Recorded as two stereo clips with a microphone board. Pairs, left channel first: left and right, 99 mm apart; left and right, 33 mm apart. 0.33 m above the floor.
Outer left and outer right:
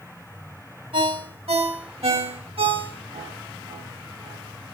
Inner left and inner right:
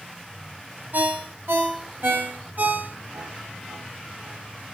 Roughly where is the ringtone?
Right.